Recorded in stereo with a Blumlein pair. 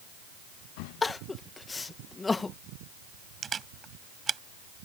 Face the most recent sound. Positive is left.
turn(degrees=-20)